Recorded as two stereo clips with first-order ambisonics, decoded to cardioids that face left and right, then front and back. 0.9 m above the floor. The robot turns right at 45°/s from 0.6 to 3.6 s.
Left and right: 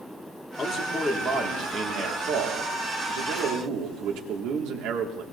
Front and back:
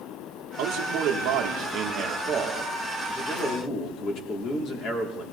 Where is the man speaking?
165° left, 2 m; by 5.2 s 60° right, 2 m.